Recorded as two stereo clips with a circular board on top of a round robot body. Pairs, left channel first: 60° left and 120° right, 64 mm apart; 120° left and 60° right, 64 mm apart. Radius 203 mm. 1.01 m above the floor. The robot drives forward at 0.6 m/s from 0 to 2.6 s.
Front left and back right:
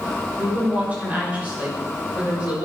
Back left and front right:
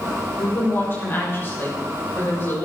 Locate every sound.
0.4 s a woman speaking: 175° left, 5.5 m